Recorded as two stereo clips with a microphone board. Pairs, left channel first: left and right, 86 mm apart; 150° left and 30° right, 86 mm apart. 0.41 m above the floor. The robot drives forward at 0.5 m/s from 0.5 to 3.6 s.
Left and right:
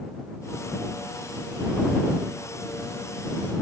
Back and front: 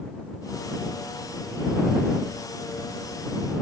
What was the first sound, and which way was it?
Only background noise.